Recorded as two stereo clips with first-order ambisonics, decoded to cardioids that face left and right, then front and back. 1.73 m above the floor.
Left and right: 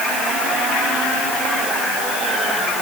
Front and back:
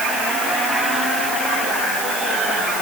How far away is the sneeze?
No sneeze in this recording.